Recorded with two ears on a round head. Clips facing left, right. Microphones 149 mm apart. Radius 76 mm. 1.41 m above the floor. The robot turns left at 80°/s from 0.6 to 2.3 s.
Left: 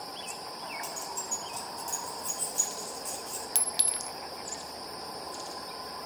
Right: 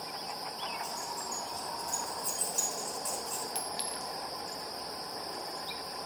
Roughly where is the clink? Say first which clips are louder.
Right 1 dB; left.